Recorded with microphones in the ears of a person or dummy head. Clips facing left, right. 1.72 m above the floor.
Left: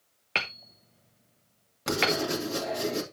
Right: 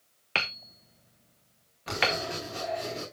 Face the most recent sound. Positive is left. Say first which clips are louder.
# left 4 dB
turn(degrees=55)  # may be behind; listen again after turning